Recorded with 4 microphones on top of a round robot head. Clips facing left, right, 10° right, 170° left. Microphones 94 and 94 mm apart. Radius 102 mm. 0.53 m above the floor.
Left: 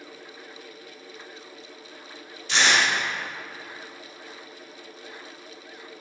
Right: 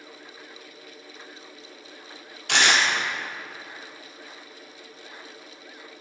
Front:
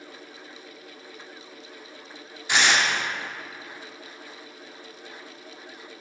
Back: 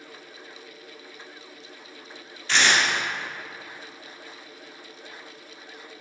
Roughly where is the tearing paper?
Right.